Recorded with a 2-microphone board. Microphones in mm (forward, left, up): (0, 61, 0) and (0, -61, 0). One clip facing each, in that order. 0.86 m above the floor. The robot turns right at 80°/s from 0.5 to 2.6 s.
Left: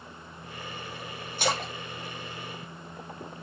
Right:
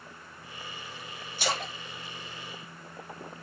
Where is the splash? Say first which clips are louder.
Left 3 dB; 50° left (ahead or behind), 1.1 m; by 1.7 s 55° left (ahead or behind), 1.1 m.